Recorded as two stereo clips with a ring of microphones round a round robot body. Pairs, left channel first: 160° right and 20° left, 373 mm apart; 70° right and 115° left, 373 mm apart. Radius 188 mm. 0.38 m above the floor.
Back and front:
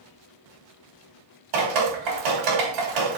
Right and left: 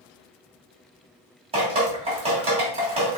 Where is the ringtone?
I don't hear a ringtone.